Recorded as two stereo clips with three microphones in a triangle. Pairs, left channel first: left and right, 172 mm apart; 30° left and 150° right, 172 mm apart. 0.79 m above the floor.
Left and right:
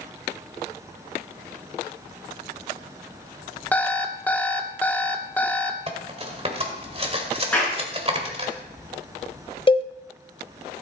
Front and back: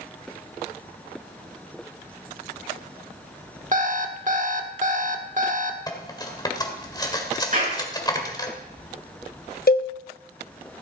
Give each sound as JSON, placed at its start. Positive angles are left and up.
{"t": 3.7, "sound": "an alarm clock", "azimuth_deg": 170, "distance_m": 1.1}
{"t": 5.9, "sound": "cutlery clinking", "azimuth_deg": -35, "distance_m": 1.8}
{"t": 7.5, "sound": "a clap", "azimuth_deg": 175, "distance_m": 7.5}
{"t": 9.7, "sound": "a cowbell", "azimuth_deg": 35, "distance_m": 0.8}